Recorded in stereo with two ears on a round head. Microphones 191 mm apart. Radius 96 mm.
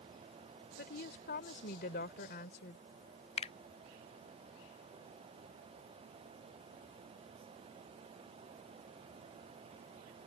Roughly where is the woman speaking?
Left.